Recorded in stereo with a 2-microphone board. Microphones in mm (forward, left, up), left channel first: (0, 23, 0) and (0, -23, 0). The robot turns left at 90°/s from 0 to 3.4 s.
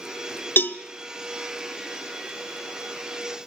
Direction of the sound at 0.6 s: 45° left (ahead or behind).